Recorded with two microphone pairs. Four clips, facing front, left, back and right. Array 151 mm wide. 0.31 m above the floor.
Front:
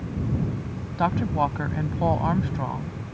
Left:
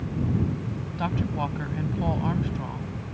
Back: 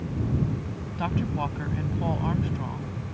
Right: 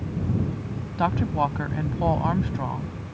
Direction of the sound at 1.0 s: 45° right.